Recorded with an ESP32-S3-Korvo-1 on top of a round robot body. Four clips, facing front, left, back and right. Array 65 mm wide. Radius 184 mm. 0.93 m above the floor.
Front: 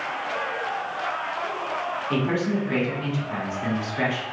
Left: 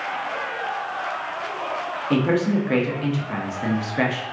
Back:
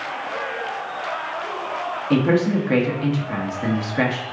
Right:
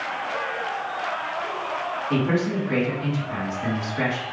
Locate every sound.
2.1 s a man speaking: 140° left, 1.0 m